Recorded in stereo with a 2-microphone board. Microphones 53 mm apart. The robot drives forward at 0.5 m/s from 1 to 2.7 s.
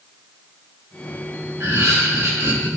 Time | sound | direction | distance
1.6 | laughter | 75° right (ahead or behind) | 3.5 m